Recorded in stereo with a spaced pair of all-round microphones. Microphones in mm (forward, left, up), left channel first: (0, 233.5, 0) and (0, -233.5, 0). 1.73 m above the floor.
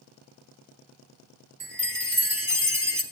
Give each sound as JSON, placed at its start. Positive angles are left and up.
{"t": 1.6, "sound": "a chime", "side_deg": -45, "distance_m": 2.0}